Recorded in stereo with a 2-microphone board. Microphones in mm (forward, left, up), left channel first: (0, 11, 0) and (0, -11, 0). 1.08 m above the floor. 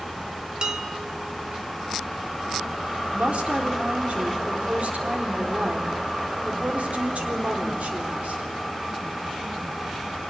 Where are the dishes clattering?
35° right (ahead or behind), 1.7 m.